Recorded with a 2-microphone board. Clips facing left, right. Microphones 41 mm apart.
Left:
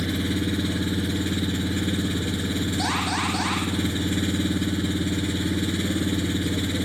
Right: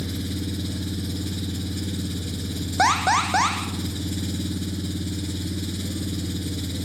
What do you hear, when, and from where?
0.0 s an engine running: 50° left (ahead or behind), 0.8 m
2.8 s an alarm: 65° right (ahead or behind), 4.5 m